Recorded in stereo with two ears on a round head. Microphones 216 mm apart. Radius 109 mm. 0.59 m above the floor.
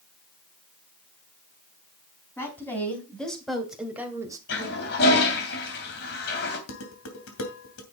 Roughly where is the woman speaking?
Centre.